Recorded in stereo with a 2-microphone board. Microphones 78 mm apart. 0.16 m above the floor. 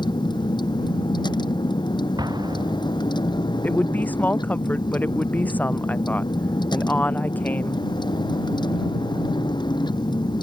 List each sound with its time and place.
0.0 s a vehicle: 75° left (ahead or behind)
2.2 s an explosion: 60° right (ahead or behind)
3.6 s a woman speaking: 20° left (ahead or behind)